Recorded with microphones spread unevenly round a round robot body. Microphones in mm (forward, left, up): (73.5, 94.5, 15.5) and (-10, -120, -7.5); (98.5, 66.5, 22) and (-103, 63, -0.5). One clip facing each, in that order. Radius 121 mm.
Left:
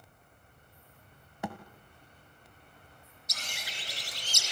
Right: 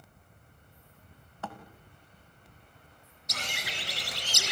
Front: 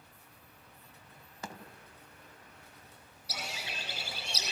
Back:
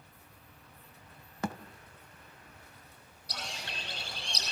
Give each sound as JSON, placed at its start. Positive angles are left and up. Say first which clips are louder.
{"t": 1.4, "sound": "a thud", "louder": "left 4 dB, back 9 dB", "azimuth_deg": 145, "distance_m": 2.0}
{"t": 3.3, "sound": "a bird", "louder": "right 6 dB, even", "azimuth_deg": -85, "distance_m": 3.0}